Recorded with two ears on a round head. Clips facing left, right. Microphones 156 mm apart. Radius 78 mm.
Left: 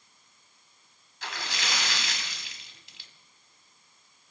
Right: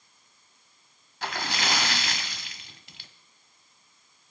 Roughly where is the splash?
Right.